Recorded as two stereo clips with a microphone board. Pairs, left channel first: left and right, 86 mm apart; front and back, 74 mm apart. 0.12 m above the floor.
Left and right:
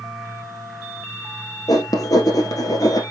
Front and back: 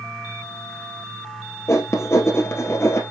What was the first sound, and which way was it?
Writing, 50° left.